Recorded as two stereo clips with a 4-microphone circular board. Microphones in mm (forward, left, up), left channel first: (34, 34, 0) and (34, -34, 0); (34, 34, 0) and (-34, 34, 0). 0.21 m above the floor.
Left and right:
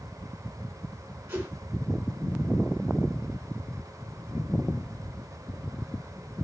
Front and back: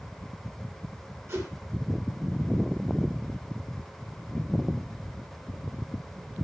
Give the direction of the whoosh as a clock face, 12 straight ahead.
5 o'clock.